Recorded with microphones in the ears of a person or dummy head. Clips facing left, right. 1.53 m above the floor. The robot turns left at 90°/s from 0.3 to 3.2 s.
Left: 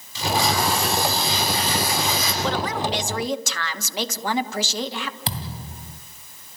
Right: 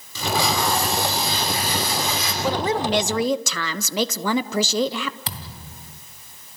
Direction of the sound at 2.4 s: Straight ahead.